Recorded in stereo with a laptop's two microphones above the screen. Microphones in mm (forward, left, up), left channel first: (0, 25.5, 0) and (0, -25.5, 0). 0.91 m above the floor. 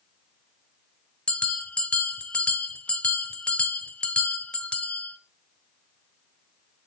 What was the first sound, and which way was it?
A bell, 20° left (ahead or behind).